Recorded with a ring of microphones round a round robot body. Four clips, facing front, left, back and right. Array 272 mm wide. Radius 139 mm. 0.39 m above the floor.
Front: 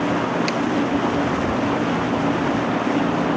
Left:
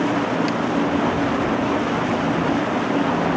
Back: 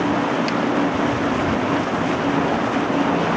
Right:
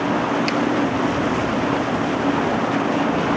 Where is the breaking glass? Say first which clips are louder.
Right 2 dB, back 1 dB; 50° right.